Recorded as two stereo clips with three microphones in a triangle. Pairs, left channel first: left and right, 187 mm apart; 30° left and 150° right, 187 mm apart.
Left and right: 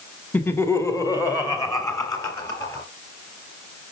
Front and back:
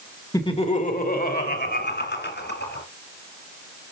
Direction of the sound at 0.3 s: 30° left.